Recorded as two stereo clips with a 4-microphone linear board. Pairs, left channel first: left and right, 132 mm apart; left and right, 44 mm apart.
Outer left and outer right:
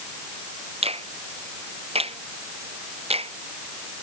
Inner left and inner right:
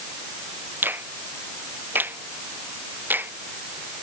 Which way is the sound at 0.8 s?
50° right (ahead or behind).